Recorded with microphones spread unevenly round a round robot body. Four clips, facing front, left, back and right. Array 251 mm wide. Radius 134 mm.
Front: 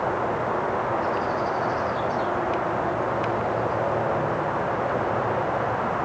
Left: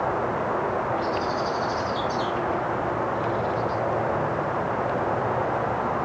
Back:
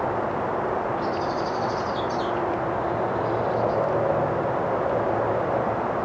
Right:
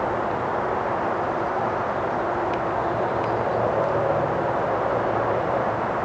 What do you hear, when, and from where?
Only background noise.